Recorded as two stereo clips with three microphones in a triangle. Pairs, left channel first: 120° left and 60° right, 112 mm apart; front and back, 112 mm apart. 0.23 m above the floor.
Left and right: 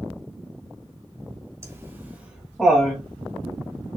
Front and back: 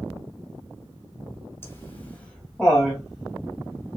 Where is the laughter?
40° right, 1.7 m; by 4.0 s 130° left, 1.7 m.